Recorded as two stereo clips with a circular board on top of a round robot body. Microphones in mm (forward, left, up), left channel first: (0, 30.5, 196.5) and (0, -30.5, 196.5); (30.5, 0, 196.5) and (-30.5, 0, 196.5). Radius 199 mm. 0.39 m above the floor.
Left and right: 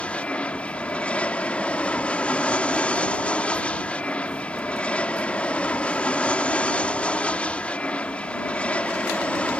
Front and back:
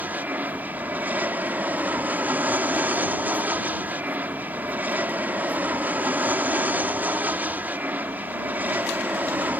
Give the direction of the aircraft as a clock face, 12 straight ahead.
7 o'clock.